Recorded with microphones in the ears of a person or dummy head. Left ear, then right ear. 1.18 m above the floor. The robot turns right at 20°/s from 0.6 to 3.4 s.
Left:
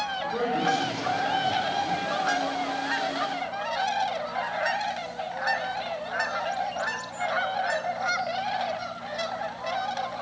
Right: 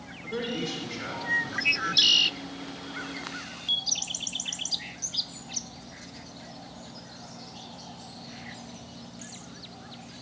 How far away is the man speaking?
About 3.5 m.